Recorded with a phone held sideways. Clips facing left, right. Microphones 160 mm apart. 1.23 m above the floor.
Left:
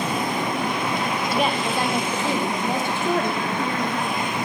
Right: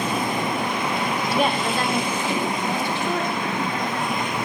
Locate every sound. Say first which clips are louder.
1.3 s a woman speaking: right 1 dB; 5° right (ahead or behind), 1.0 m; by 4.3 s 70° left (ahead or behind), 1.9 m